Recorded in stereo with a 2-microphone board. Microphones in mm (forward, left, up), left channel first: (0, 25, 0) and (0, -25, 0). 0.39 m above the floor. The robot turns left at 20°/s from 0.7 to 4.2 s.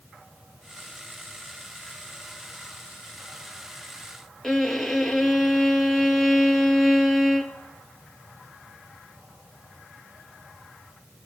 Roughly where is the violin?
Centre.